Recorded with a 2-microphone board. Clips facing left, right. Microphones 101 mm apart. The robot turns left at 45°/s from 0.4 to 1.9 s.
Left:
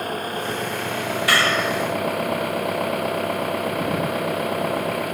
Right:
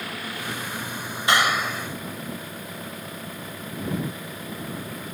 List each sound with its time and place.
0.0 s an engine running: 135° left; by 5.1 s 70° left
1.3 s a clap: 20° right (ahead or behind); by 1.9 s 5° left (ahead or behind)